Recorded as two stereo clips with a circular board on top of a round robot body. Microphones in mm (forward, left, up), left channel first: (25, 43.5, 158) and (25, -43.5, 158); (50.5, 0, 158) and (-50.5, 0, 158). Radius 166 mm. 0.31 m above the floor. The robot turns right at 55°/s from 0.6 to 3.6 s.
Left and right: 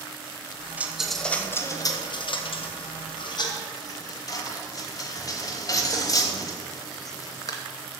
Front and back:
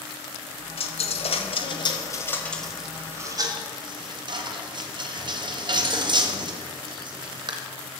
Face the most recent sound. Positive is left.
turn(degrees=140)